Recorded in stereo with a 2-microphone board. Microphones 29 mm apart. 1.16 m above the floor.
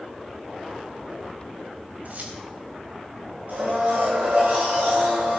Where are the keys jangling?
60° right (ahead or behind), 3.5 m.